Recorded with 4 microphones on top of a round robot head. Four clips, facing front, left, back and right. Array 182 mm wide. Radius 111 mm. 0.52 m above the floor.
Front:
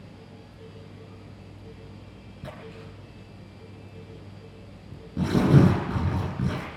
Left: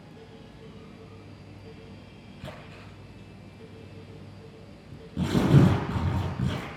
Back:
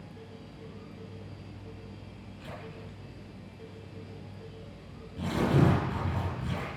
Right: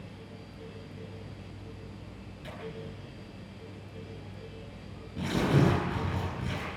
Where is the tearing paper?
25° left, 7.5 m.